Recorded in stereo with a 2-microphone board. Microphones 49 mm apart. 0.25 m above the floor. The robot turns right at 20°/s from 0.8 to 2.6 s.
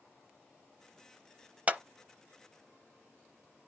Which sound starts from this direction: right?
A clap, at 1.7 s.